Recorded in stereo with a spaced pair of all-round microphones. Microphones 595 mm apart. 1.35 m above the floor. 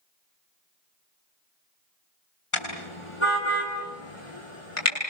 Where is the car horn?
55° left (ahead or behind), 7 m.